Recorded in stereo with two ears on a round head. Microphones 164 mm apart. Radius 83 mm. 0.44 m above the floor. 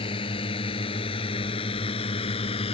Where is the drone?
30° left (ahead or behind); by 2.7 s 35° left (ahead or behind).